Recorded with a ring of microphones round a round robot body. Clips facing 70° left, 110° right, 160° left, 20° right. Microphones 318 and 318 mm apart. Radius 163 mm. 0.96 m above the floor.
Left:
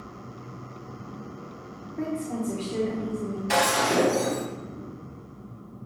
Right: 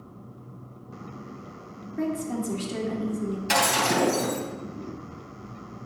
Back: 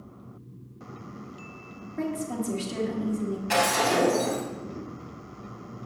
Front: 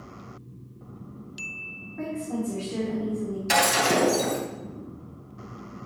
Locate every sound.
2.0 s a woman speaking: 170° right, 2 m
3.5 s breaking glass: 50° right, 4 m